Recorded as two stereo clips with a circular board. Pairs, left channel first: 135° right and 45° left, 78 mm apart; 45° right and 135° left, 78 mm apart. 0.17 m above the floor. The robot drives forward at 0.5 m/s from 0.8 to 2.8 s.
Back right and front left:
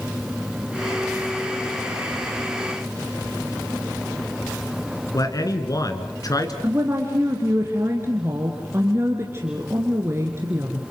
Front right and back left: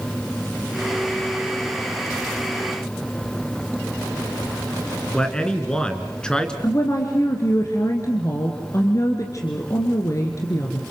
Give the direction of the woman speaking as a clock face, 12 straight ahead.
12 o'clock.